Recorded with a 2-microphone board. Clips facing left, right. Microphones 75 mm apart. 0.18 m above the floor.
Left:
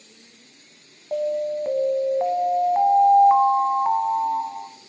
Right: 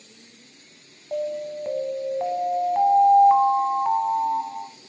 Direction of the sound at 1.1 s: 15° left (ahead or behind).